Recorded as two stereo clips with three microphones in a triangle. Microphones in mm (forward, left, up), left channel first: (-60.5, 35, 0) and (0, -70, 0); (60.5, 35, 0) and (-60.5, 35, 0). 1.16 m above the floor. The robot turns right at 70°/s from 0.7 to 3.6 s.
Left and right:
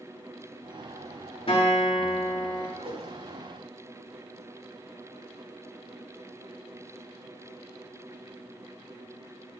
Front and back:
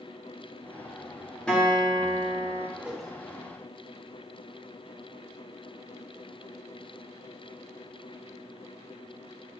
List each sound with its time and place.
1.5 s a guitar: 85° left, 3.5 m; by 2.7 s 165° left, 3.5 m
2.8 s a whoosh: 105° right, 1.5 m; by 3.5 s 60° right, 1.5 m